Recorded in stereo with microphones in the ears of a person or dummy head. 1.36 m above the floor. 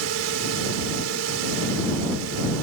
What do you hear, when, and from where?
0.0 s a drone: 85° right